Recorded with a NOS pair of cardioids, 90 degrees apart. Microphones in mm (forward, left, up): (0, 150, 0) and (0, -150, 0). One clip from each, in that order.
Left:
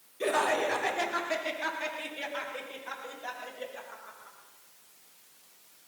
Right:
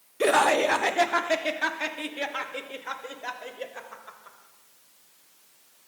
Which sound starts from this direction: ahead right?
Laughter, at 0.2 s.